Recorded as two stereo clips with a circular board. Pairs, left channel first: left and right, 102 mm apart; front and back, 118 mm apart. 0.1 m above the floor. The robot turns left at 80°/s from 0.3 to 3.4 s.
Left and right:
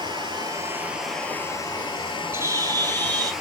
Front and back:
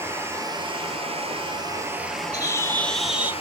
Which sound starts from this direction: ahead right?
A bird, at 2.3 s.